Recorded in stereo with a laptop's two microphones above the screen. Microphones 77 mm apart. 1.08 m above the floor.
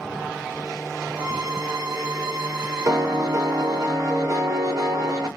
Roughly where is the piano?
Right.